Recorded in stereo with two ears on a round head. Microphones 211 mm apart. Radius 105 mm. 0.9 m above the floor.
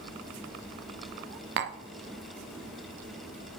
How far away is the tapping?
About 0.5 m.